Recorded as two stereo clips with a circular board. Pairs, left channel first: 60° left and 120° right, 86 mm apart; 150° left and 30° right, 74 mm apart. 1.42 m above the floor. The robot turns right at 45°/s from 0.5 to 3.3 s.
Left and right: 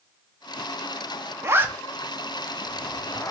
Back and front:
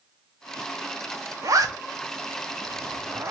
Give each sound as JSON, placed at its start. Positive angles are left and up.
{"t": 1.4, "sound": "a zipper", "azimuth_deg": -65, "distance_m": 0.5}